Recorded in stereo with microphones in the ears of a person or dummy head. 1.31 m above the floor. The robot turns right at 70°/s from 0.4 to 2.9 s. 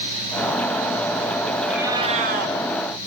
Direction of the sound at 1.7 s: Straight behind.